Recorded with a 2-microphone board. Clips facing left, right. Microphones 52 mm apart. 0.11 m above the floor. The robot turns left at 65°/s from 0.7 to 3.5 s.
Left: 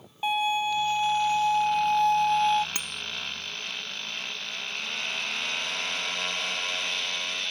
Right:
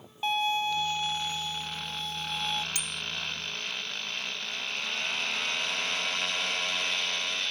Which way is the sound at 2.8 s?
30° left (ahead or behind).